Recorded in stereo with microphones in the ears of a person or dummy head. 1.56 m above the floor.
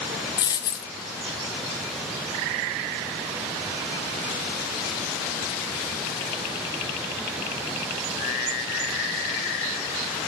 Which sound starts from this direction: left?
A dropped coin, at 0.4 s.